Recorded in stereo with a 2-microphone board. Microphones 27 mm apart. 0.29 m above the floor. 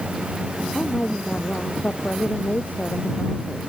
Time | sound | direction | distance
0.7 | a woman speaking | 70° left (ahead or behind) | ?